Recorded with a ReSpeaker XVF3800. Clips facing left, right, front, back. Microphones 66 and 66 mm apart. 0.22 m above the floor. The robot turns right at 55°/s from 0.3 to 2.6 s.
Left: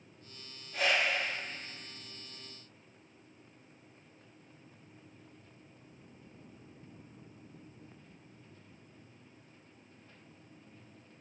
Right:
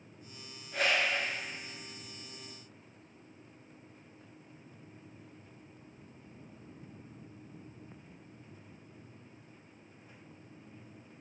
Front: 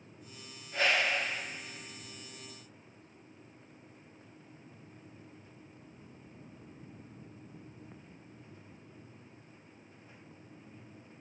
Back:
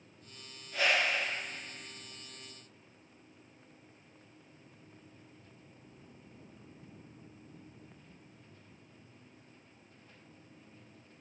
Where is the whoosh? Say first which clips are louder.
Even, front 1 dB; 70° right, 1.6 m; by 1.3 s 35° right, 1.6 m.